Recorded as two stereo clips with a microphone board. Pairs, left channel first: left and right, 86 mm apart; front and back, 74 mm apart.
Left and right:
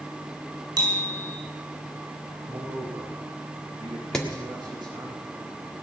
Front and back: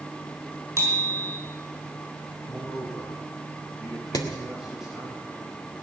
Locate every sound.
0.8 s a bicycle bell: 125° right, 5.5 m
2.5 s a man speaking: 95° right, 3.5 m
4.1 s hammering: 10° left, 1.8 m